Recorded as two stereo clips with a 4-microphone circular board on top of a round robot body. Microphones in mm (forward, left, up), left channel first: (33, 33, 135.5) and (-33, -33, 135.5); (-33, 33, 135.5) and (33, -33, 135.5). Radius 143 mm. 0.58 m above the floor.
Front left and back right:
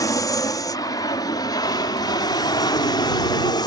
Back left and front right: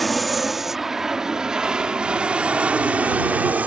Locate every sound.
0.0 s an aircraft: 45° left; by 3.7 s 25° left